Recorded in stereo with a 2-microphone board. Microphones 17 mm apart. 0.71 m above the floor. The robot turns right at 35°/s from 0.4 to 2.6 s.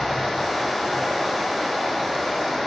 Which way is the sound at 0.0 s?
100° left.